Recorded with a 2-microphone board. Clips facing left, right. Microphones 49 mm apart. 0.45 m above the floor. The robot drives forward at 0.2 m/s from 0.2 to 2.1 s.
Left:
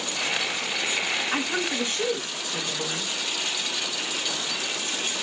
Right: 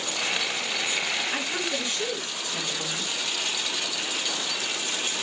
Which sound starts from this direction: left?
A woman speaking, at 1.3 s.